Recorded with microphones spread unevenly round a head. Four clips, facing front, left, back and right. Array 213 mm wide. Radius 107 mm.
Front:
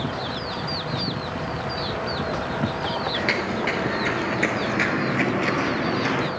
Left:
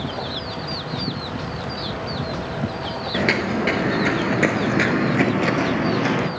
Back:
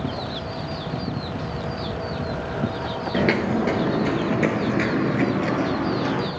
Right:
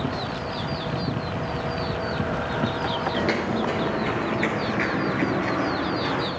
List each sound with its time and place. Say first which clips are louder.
3.1 s footsteps: left 6 dB, back 4 dB; 170° left, 1.3 m; by 6.3 s 70° left, 1.8 m